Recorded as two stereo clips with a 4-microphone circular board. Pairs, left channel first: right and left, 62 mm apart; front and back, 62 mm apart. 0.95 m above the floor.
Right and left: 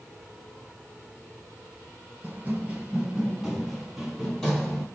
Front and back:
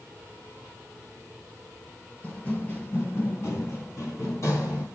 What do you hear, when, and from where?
2.2 s running footsteps: 50° left, 1.2 m; by 4.8 s 15° right, 1.8 m